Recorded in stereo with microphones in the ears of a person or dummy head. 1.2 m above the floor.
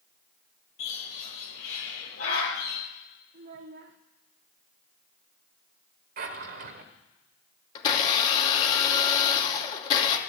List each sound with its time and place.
0.8 s a bird: 80° left, 10 m
3.3 s a child speaking: 50° right (ahead or behind), 1.2 m
6.2 s a drawer: 45° right (ahead or behind), 1.3 m
7.8 s a blender: 40° left (ahead or behind), 2.5 m